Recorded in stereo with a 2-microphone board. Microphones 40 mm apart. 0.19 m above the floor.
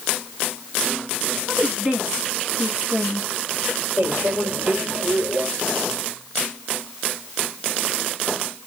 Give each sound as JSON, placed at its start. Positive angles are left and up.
{"t": 1.5, "sound": "a woman speaking", "side_deg": -40, "distance_m": 1.7}
{"t": 4.0, "sound": "a microwave", "side_deg": -60, "distance_m": 3.0}